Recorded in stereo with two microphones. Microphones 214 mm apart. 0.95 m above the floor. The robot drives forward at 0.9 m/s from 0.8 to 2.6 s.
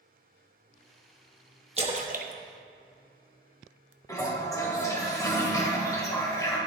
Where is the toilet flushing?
15° left (ahead or behind), 1.5 m.